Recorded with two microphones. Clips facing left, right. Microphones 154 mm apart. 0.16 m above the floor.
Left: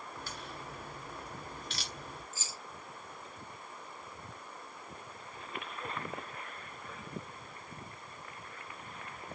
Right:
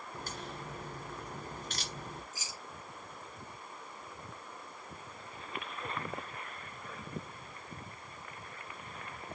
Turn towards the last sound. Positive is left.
turn(degrees=-15)  # may be behind; listen again after turning